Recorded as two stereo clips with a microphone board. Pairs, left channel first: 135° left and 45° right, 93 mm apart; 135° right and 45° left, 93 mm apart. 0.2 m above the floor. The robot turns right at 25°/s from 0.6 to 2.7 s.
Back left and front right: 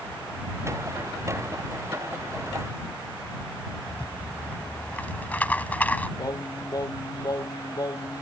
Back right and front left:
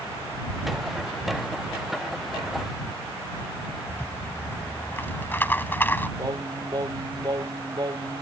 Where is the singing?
90° left.